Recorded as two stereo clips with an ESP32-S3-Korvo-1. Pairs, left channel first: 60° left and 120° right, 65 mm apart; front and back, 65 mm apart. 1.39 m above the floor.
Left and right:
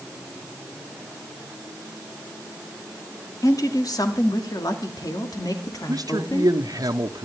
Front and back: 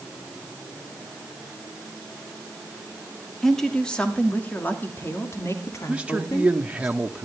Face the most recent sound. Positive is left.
turn(degrees=-105)